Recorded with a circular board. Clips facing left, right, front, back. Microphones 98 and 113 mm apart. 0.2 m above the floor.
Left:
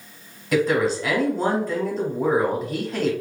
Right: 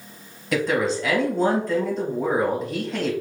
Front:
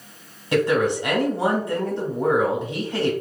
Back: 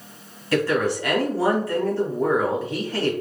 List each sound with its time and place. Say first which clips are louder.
0.5 s a woman speaking: left 2 dB, front 2 dB; 5° left, 1.0 m